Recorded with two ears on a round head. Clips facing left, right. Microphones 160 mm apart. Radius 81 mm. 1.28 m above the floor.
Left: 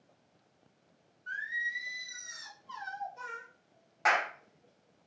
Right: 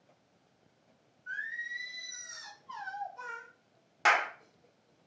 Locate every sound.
1.3 s singing: 35° left (ahead or behind), 0.9 m
4.0 s a clap: 30° right (ahead or behind), 0.8 m